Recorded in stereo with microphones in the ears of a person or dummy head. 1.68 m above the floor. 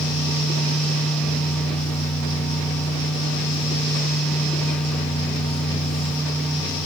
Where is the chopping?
I don't hear chopping.